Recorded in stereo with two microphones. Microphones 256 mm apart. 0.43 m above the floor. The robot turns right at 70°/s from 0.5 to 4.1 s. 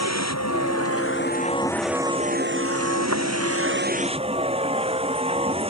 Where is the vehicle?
85° left; by 5.7 s 20° right.